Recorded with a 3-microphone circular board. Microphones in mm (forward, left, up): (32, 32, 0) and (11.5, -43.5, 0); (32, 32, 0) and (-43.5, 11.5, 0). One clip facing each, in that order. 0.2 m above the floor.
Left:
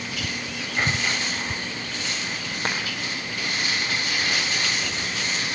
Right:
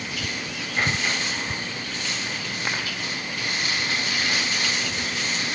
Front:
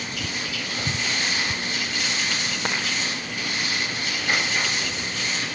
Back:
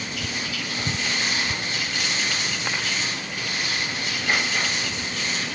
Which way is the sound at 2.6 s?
30° left.